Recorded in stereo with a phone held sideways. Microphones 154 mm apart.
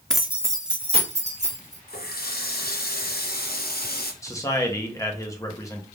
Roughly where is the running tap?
Left.